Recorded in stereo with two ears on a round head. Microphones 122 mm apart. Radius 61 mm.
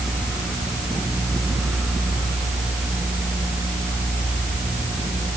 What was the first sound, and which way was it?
Only background noise.